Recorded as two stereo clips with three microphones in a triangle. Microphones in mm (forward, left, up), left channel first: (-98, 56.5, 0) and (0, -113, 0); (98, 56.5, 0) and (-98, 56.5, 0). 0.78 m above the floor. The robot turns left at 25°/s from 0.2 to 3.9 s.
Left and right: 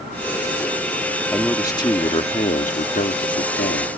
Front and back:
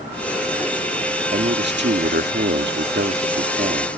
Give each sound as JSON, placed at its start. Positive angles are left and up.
{"t": 1.3, "sound": "a man speaking", "azimuth_deg": -160}